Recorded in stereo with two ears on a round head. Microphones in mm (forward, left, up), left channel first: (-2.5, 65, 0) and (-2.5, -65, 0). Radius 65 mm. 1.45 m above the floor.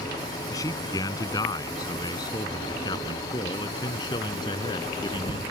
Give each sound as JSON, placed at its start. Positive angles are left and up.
{"t": 0.5, "sound": "a man speaking", "side_deg": 20}